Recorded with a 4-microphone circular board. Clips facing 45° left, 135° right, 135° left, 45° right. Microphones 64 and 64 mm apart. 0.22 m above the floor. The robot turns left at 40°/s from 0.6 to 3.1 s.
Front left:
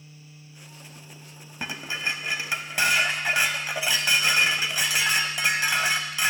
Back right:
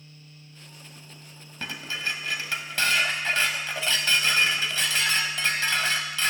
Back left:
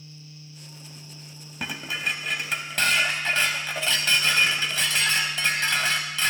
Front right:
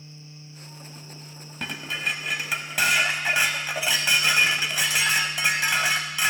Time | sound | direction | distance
1.6 | dishes clattering | 65° left | 0.6 m